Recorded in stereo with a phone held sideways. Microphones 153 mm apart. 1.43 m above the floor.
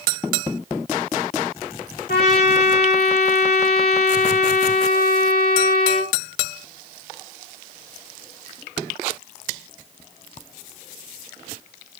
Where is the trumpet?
75° left (ahead or behind), 1.9 m.